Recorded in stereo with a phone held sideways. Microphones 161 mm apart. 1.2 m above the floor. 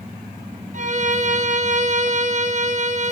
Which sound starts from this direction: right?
A violin, at 0.7 s.